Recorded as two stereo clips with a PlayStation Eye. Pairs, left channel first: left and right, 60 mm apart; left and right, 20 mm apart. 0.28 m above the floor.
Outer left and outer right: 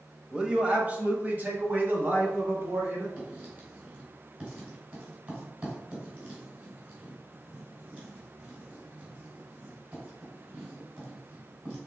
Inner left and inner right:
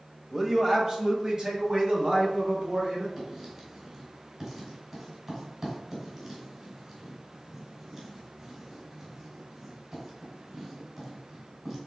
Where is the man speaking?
15° right (ahead or behind), 0.9 m; by 3.1 s 45° right (ahead or behind), 2 m.